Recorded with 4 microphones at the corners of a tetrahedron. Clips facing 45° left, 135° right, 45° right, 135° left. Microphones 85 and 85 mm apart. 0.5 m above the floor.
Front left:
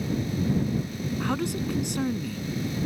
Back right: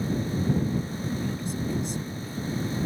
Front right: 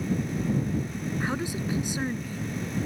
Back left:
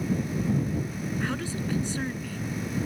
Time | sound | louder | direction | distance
1.2 | a man speaking | front left 3 dB, front right 2 dB | 30° left | ?